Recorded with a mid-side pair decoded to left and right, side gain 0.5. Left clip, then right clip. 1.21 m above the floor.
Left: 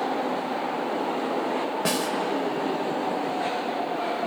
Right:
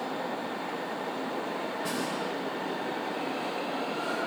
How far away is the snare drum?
About 3.5 m.